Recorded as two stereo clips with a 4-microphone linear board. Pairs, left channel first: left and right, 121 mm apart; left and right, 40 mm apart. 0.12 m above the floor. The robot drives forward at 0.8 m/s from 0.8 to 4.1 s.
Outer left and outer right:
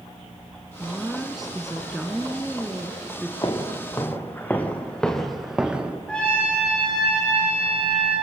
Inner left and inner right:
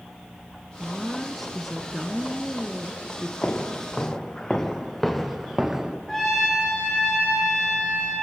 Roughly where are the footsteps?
Left.